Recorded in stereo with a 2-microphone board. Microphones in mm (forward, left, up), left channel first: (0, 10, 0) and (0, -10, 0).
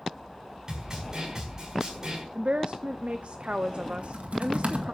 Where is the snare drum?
30° right (ahead or behind), 5.5 m.